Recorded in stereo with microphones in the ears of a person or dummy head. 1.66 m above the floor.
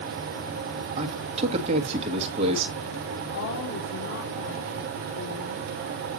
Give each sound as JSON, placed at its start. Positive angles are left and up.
{"t": 1.0, "sound": "a man speaking", "side_deg": -35, "distance_m": 1.6}
{"t": 3.3, "sound": "a woman speaking", "side_deg": 80, "distance_m": 3.5}